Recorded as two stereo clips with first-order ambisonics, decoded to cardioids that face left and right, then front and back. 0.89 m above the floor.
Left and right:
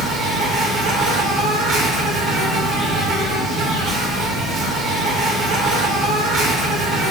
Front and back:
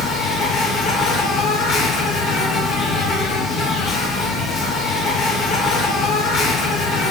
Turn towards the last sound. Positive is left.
turn(degrees=-50)